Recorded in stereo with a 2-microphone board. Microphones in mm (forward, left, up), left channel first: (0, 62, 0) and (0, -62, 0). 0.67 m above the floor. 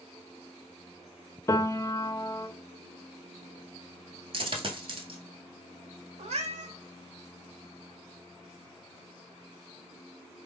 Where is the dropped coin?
50° right (ahead or behind), 0.9 m.